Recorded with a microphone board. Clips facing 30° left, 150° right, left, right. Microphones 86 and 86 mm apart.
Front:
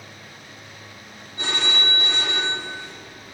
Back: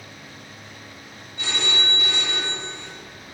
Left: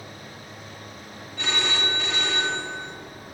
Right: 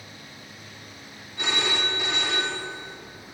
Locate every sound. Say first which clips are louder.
1.4 s a phone ringing: front 1 dB, even; 15° right, 1.5 m